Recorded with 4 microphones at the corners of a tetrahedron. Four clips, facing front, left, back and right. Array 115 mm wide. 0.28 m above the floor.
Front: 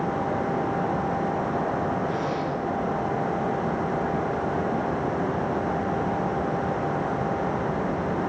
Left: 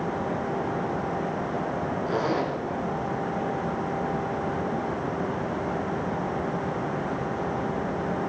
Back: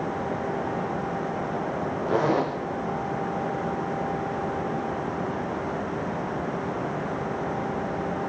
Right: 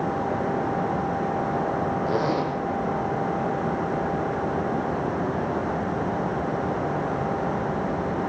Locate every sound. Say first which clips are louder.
2.1 s a zipper: even, back 4 dB; 150° right, 7 m